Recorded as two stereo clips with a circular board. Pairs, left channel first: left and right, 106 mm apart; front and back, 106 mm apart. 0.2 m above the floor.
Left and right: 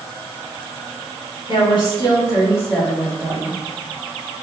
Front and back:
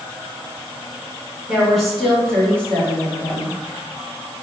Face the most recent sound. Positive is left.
turn(degrees=-35)